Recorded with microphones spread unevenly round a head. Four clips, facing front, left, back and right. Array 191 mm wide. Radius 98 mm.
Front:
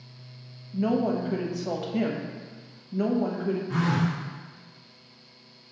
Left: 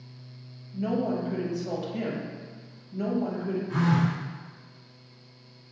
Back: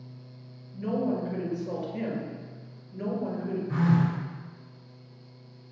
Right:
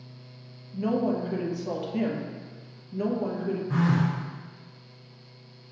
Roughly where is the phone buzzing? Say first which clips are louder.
Even, back 5 dB; right.